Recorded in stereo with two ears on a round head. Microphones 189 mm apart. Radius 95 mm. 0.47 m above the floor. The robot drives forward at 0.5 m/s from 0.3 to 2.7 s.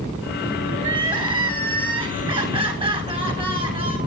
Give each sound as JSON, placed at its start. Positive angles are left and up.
{"t": 0.8, "sound": "crying", "side_deg": -20, "distance_m": 7.5}